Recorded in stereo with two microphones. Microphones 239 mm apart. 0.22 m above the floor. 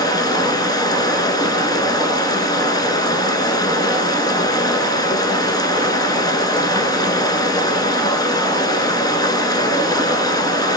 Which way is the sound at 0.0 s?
15° left (ahead or behind).